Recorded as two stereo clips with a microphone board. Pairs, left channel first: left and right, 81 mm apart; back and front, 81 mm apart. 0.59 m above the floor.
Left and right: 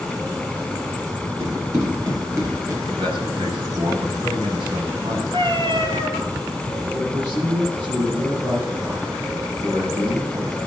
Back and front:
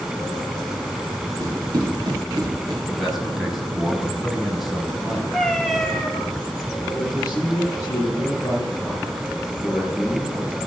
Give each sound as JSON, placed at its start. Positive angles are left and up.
{"t": 1.4, "sound": "running footsteps", "azimuth_deg": -45, "distance_m": 9.0}
{"t": 2.9, "sound": "a man speaking", "azimuth_deg": -90, "distance_m": 5.0}
{"t": 5.3, "sound": "a cat meowing", "azimuth_deg": -95, "distance_m": 2.5}
{"t": 6.9, "sound": "a man speaking", "azimuth_deg": -100, "distance_m": 9.0}